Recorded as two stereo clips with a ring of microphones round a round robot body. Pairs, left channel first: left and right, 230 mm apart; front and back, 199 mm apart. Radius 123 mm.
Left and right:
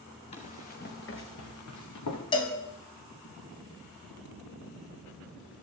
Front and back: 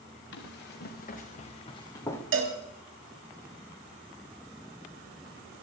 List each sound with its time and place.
0.3 s running footsteps: 25° left, 3 m; by 2.2 s 80° left, 3.5 m
2.3 s a cowbell: 160° left, 2 m